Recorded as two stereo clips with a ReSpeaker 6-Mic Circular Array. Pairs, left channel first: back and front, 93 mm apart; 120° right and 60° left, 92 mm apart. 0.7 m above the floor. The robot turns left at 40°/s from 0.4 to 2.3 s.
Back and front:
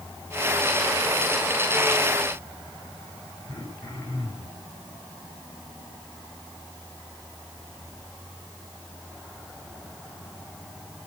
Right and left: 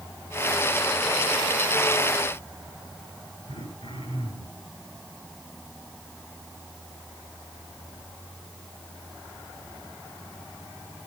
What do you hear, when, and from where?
3.5 s throat clearing: 120° right, 9.5 m